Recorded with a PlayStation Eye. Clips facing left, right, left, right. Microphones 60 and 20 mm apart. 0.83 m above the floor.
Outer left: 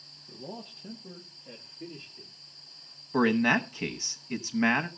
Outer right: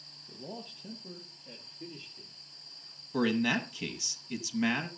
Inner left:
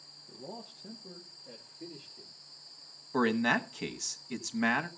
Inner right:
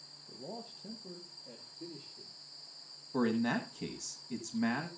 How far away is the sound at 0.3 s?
About 1.1 m.